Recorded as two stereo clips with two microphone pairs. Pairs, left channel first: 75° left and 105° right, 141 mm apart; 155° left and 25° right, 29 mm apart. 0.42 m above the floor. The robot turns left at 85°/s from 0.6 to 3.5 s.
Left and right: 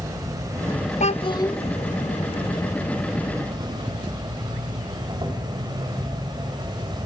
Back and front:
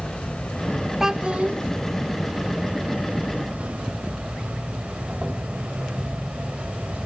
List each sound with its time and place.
0.0 s an insect: 165° right, 3 m; by 7.1 s 55° right, 3 m
1.0 s a child speaking: 50° left, 0.8 m; by 1.6 s 5° left, 0.8 m